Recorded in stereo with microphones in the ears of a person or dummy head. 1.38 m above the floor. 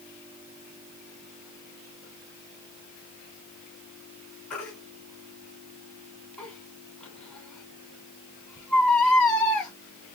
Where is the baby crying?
5° left (ahead or behind), 3.5 m.